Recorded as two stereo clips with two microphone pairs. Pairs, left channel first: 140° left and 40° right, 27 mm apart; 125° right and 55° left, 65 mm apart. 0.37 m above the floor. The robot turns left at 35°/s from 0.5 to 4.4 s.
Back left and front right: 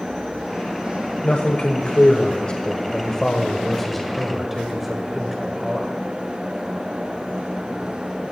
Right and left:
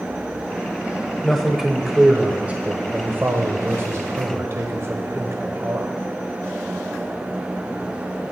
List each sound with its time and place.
1.2 s a man speaking: 155° left, 1.3 m; by 5.9 s 45° left, 1.3 m